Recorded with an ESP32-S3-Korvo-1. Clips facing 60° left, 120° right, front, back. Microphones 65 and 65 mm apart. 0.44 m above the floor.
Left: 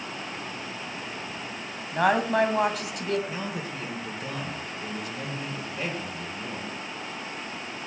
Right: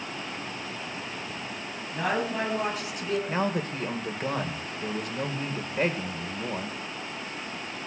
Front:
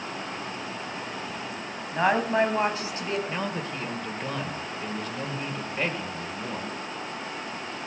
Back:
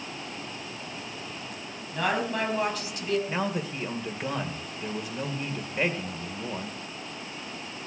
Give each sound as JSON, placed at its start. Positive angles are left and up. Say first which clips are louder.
{"t": 1.9, "sound": "a woman speaking", "louder": "left 6 dB, front 5 dB", "azimuth_deg": 55, "distance_m": 2.5}
{"t": 3.3, "sound": "a man speaking", "louder": "right 5 dB, back 1 dB", "azimuth_deg": -105, "distance_m": 1.8}